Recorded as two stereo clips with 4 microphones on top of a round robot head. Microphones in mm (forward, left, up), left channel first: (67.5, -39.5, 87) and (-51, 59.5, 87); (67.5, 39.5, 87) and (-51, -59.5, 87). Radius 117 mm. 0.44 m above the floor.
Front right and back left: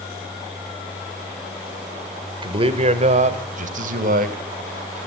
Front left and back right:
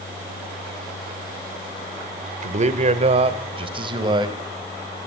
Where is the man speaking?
170° right, 2 m; by 4.4 s 160° left, 3 m.